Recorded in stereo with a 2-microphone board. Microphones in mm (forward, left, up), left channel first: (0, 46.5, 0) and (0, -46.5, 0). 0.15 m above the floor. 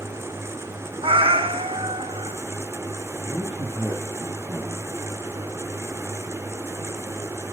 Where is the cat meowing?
85° right, 1.1 m.